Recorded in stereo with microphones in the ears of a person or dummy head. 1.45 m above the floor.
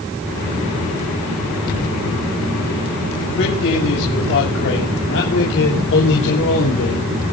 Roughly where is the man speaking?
Left.